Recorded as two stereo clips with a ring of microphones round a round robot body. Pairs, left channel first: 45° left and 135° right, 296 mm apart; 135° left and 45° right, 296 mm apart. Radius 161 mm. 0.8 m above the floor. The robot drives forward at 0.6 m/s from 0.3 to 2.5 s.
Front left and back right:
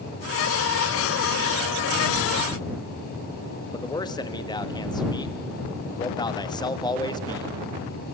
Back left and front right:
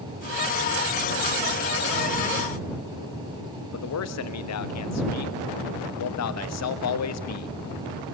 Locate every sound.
3.7 s a man speaking: 120° left, 1.3 m